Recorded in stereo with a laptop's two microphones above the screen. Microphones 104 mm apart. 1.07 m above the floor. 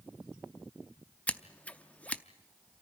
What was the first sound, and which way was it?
Scissors, 15° left (ahead or behind).